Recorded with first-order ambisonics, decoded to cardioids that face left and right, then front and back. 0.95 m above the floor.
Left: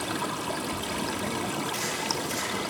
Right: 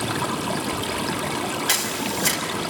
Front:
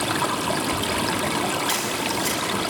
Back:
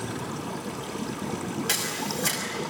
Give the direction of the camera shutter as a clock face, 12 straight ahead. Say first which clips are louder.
Right 5 dB, front 4 dB; 3 o'clock.